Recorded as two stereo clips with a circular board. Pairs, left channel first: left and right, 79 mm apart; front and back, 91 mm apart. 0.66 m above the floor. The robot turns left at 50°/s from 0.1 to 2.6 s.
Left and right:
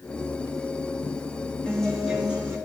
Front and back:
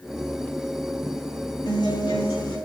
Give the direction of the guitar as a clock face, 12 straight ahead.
12 o'clock.